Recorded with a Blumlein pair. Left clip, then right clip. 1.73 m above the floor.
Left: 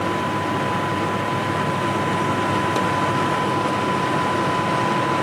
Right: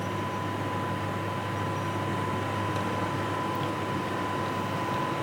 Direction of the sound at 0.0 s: 35° left.